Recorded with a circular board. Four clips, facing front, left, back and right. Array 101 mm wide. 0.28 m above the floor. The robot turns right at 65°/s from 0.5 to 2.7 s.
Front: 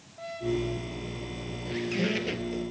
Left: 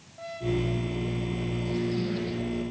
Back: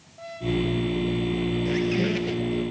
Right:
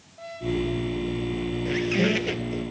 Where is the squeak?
120° right, 1.6 m; by 2.6 s 55° right, 1.6 m.